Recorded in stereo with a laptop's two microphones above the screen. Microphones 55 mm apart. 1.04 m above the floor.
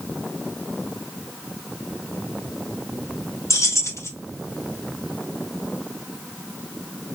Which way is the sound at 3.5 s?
60° left (ahead or behind).